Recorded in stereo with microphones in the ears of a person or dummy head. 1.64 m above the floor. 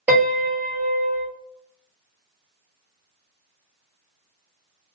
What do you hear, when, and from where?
0.1 s a piano: 5° right (ahead or behind), 1.3 m